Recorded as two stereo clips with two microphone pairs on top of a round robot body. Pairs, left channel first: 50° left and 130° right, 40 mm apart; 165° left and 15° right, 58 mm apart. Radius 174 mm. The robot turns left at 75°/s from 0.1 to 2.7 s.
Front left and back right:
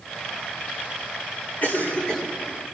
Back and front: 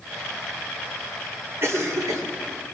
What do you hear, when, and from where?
1.6 s a cough: 20° left, 3 m; by 2.2 s 30° right, 3 m